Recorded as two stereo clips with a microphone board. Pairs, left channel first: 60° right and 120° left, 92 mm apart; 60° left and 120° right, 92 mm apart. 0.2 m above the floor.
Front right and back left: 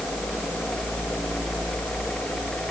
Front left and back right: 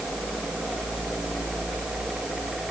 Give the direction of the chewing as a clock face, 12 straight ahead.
I don't hear chewing.